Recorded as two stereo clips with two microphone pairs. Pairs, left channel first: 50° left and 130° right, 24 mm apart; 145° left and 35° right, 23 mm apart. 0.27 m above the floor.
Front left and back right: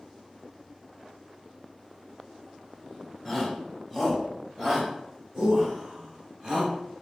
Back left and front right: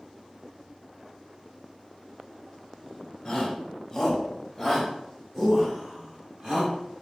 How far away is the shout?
About 1.4 m.